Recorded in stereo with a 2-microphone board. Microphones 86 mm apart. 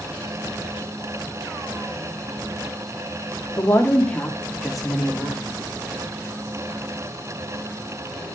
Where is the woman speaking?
35° left (ahead or behind), 2 m; by 5.6 s 15° right (ahead or behind), 3.5 m.